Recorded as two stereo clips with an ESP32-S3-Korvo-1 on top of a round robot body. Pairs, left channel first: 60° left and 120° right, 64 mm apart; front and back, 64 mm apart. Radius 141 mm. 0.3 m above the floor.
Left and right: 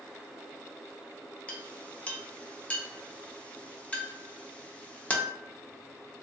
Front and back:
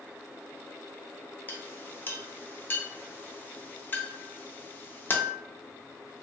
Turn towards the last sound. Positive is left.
turn(degrees=10)